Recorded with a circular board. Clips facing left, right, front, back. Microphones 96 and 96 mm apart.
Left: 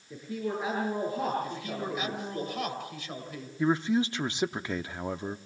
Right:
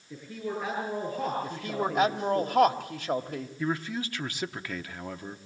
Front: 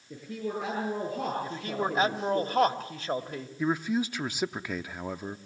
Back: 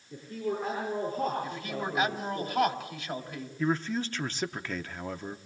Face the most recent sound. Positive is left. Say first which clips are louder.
# left 6 dB, front 1 dB
turn(degrees=65)